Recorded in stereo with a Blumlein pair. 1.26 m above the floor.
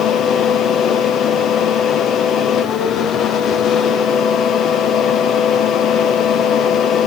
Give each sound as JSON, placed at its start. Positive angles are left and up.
{"t": 0.0, "sound": "a fan", "azimuth_deg": 30, "distance_m": 0.7}